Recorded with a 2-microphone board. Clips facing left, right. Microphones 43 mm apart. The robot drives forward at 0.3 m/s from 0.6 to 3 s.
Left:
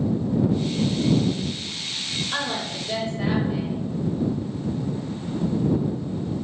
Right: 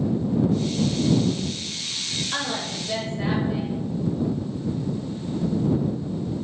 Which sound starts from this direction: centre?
A woman speaking, at 2.3 s.